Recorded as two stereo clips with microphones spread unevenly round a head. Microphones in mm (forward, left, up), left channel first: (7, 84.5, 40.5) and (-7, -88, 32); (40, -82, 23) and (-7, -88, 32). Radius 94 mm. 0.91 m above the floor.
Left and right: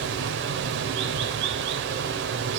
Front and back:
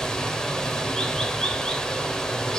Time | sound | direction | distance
0.0 | running water | 70° right | 1.8 m